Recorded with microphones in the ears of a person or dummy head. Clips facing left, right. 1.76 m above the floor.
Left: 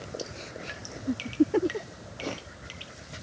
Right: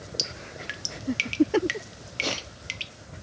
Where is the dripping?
40° right (ahead or behind), 1.0 m.